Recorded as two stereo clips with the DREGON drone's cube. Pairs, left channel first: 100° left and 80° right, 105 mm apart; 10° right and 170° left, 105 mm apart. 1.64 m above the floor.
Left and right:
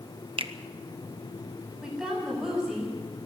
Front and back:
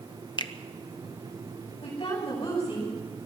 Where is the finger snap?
55° right, 1.0 m.